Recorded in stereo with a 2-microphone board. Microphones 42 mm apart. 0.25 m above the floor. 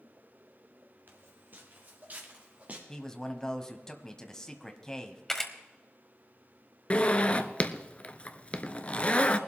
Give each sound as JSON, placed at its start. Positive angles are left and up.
{"t": 1.1, "sound": "footsteps", "side_deg": -50, "distance_m": 2.5}
{"t": 2.9, "sound": "a man speaking", "side_deg": 15, "distance_m": 1.4}
{"t": 5.3, "sound": "a camera shutter", "side_deg": 10, "distance_m": 1.3}
{"t": 6.9, "sound": "a zipper", "side_deg": 30, "distance_m": 0.7}